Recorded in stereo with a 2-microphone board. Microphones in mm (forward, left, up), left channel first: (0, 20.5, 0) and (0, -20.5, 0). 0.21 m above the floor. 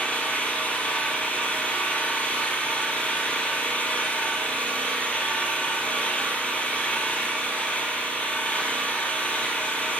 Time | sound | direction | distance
0.0 | an engine running | 30° left (ahead or behind) | 3.5 m